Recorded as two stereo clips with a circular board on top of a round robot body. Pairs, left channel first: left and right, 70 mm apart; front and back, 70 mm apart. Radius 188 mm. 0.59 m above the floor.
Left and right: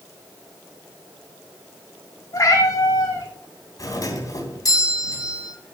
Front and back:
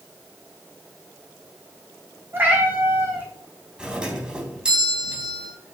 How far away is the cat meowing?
About 5 m.